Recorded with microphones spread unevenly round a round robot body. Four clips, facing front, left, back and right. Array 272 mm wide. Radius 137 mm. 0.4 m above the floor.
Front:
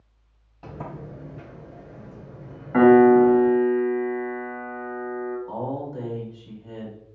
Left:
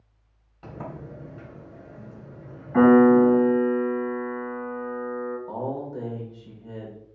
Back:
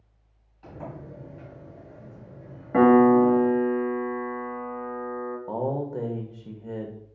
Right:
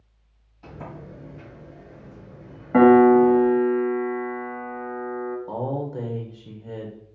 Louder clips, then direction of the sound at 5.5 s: Right 2 dB, back 2 dB; 155° right.